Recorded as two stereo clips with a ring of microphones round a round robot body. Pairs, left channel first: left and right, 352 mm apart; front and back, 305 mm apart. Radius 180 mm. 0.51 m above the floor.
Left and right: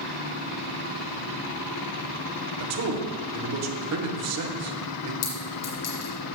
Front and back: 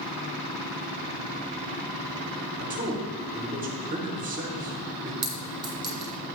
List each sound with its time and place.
2.6 s a man speaking: 120° right, 1.1 m
5.2 s a clink: 125° left, 3 m